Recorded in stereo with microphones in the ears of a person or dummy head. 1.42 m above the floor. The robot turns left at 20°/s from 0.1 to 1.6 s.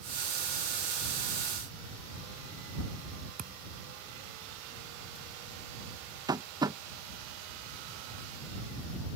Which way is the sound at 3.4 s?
45° right (ahead or behind).